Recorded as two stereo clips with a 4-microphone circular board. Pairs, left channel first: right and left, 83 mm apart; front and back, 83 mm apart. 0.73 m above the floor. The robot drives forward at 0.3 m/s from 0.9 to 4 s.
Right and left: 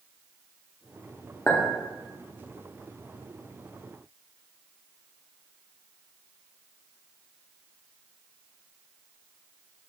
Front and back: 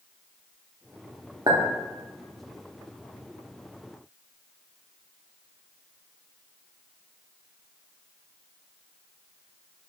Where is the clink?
150° right, 0.8 m; by 1.6 s 155° right, 0.8 m.